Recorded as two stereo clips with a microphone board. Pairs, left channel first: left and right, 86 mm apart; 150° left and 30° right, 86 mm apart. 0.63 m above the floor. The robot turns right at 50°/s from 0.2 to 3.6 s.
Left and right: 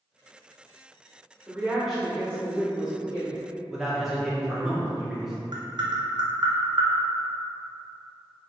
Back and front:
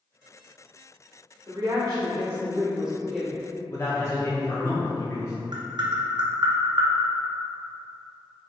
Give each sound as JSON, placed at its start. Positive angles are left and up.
{"t": 1.5, "sound": "a woman speaking", "azimuth_deg": -25, "distance_m": 1.5}
{"t": 3.7, "sound": "a man speaking", "azimuth_deg": -175, "distance_m": 1.0}
{"t": 5.5, "sound": "tapping", "azimuth_deg": -60, "distance_m": 0.6}